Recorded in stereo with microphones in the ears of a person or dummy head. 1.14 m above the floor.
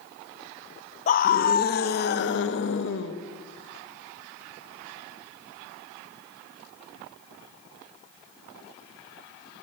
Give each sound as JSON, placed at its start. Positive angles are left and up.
{"t": 1.1, "sound": "a scream", "side_deg": 40, "distance_m": 1.0}